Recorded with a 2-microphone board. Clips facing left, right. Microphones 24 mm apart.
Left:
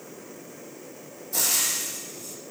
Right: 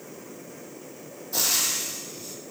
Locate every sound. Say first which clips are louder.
1.3 s frying: right 1 dB; 20° right (ahead or behind), 3.5 m